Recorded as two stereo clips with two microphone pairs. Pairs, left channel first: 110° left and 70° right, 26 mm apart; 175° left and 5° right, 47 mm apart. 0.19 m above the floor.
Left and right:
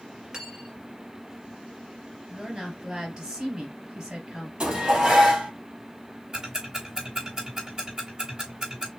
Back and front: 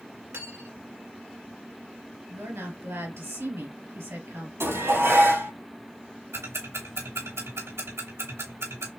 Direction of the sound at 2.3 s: 15° right.